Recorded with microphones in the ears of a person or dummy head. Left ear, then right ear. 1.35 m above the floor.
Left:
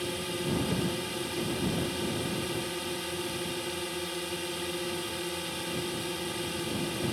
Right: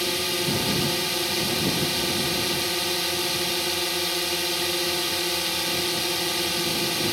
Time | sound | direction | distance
0.0 | a drone | 30° right (ahead or behind) | ?